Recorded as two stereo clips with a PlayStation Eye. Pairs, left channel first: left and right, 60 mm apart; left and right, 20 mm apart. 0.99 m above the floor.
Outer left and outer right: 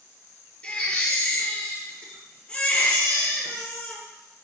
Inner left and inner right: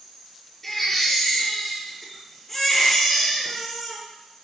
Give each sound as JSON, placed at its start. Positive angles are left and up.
{"t": 0.6, "sound": "a baby crying", "side_deg": 20, "distance_m": 5.5}